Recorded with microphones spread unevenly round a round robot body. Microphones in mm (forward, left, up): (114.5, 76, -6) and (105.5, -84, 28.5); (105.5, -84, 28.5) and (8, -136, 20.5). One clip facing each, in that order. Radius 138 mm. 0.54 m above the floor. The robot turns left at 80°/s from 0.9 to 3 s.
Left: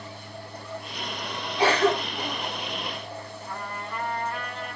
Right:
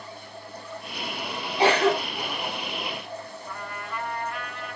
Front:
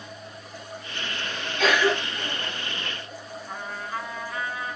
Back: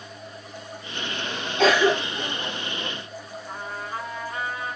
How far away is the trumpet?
About 1.5 m.